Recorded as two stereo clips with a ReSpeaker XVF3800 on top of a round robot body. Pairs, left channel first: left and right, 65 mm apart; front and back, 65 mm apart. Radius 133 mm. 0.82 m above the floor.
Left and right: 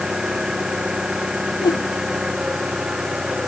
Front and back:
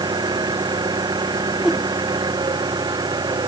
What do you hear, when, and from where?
0.0 s an engine running: 170° right
1.6 s a whoosh: 95° left